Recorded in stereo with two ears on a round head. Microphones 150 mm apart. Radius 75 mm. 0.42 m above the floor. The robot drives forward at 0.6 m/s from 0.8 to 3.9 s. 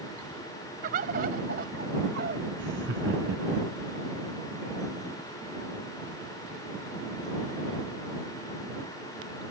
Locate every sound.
0.8 s a bird: 50° right (ahead or behind); by 2.4 s 60° right (ahead or behind)
2.6 s laughter: 75° right (ahead or behind)